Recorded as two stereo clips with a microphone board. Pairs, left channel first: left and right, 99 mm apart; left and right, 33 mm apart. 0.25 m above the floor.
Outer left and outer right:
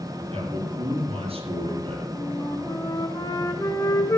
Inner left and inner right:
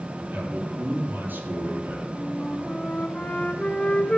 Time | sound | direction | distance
0.3 | a man speaking | 75° right (ahead or behind) | 7 m
2.1 | a flute | 40° left (ahead or behind) | 1.6 m